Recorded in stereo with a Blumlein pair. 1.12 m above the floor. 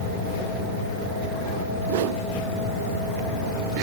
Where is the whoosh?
55° right, 0.9 m.